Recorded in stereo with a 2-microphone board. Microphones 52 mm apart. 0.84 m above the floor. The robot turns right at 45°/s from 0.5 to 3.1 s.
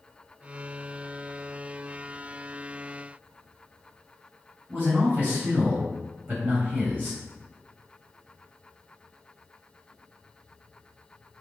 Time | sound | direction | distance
4.7 | a man speaking | 35° right (ahead or behind) | 1.5 m